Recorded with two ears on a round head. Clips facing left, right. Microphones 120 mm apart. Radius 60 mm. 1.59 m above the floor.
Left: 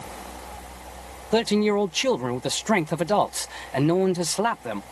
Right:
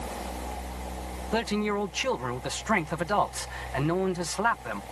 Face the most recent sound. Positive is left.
turn(degrees=30)  # may be behind; listen again after turning